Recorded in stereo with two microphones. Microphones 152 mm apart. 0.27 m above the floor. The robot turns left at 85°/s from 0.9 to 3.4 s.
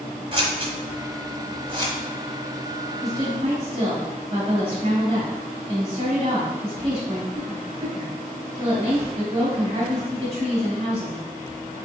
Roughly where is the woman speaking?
Ahead right.